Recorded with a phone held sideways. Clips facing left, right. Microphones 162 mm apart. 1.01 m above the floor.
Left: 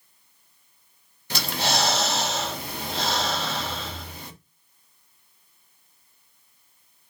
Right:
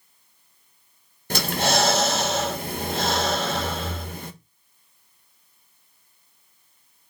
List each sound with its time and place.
1.3 s breathing: 45° right (ahead or behind), 1.2 m